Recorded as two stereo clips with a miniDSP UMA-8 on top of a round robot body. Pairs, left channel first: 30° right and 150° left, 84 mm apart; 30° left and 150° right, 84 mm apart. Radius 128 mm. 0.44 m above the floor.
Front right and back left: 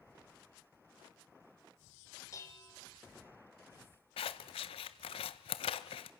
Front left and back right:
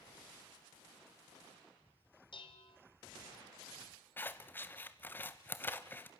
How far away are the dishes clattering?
About 2.0 m.